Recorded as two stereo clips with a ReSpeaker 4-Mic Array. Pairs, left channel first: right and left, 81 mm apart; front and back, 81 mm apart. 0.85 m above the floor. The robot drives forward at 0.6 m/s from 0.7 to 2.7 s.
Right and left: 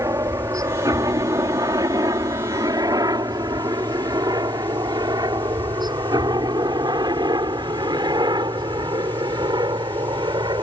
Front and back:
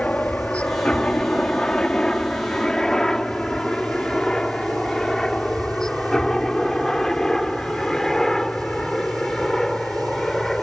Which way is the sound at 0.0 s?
70° left.